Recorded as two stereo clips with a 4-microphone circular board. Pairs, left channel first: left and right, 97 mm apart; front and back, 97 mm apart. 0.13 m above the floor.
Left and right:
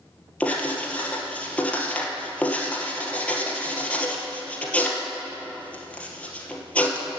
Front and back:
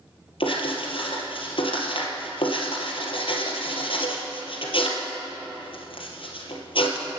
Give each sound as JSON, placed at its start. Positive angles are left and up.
{"t": 0.4, "sound": "writing", "azimuth_deg": 15, "distance_m": 2.5}